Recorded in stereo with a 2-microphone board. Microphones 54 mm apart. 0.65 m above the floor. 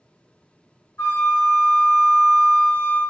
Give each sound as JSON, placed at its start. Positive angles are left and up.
{"t": 1.0, "sound": "a flute", "side_deg": 50, "distance_m": 1.4}